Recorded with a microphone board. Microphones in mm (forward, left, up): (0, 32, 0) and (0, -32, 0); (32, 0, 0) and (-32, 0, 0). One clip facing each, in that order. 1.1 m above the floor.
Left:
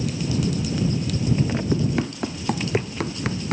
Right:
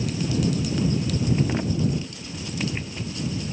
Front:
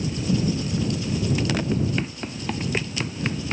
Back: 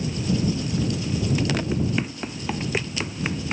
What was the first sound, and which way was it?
Running footsteps, 95° left.